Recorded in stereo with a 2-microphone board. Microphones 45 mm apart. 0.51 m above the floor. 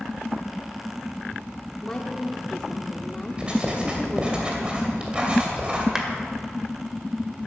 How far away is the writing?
About 2.5 m.